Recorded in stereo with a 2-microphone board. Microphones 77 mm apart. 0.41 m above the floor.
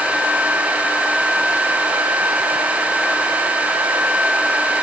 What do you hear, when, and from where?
Only background noise.